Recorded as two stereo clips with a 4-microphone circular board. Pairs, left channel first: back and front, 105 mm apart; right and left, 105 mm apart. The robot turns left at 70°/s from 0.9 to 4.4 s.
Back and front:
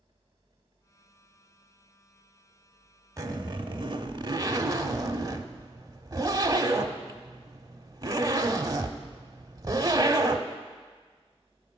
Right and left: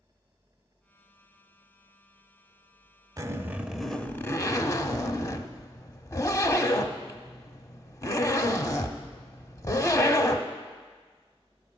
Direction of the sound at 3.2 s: 45° left.